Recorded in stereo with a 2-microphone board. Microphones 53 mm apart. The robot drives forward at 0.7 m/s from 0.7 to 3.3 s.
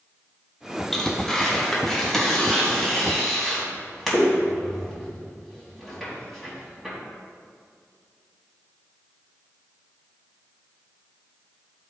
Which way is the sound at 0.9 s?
15° left (ahead or behind).